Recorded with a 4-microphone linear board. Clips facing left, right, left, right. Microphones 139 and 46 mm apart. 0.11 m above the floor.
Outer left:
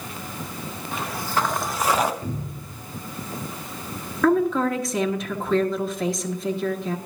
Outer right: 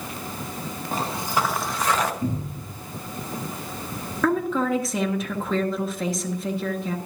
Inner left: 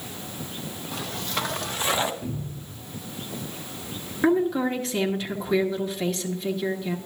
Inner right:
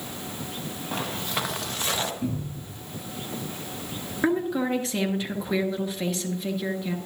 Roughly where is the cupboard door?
Right.